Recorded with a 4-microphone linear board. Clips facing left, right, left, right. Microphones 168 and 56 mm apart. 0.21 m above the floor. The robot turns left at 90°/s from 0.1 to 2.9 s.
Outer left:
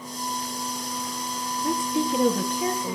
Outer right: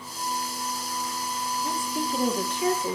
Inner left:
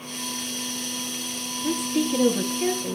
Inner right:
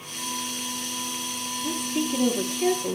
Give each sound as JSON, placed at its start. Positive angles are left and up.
{"t": 1.6, "sound": "a woman speaking", "azimuth_deg": 125, "distance_m": 3.5}